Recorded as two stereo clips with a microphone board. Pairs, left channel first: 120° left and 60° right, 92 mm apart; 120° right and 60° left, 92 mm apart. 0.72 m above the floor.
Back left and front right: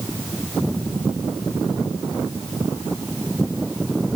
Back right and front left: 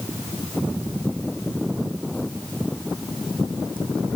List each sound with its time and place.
Only background noise.